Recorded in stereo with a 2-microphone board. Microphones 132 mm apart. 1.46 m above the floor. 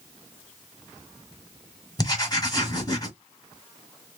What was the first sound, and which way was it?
Writing, 30° left (ahead or behind).